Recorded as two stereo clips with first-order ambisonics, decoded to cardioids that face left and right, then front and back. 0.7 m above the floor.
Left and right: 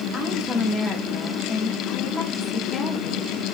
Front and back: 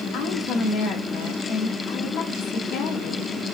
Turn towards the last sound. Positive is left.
turn(degrees=25)